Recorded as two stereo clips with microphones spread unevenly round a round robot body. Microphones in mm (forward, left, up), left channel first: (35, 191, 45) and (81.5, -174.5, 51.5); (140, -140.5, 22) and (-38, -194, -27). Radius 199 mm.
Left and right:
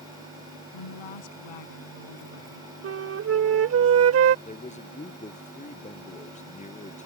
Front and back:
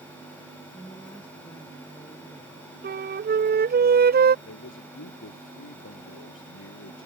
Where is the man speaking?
25° left.